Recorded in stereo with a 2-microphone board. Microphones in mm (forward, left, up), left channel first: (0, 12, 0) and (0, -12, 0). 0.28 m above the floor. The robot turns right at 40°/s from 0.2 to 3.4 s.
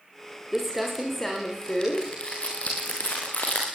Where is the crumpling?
10° right (ahead or behind), 8 m; by 3.7 s 75° left (ahead or behind), 8 m.